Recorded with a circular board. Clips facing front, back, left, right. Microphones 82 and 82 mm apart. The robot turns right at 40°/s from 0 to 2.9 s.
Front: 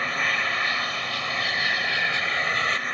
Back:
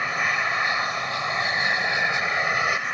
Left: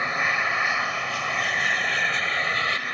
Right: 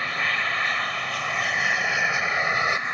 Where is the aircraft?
125° left; by 3.0 s 120° right.